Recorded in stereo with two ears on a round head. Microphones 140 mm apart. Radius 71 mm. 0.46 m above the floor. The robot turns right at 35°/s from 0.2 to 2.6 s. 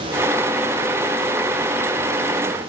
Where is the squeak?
No squeak in this recording.